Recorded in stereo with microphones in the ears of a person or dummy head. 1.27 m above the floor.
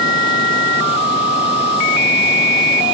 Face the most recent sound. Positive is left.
No sound to turn to.